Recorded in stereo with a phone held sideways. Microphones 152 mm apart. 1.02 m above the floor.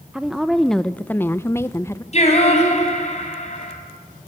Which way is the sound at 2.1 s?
45° left (ahead or behind).